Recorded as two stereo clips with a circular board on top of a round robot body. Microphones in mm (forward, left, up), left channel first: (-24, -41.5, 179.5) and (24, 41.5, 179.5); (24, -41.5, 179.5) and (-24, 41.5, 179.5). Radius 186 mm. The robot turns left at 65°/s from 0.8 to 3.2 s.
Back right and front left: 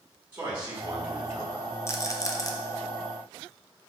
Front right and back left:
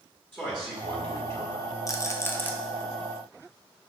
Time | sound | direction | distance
0.3 | a man speaking | 5° left | 1.5 m
1.9 | a rattle | 80° right | 0.7 m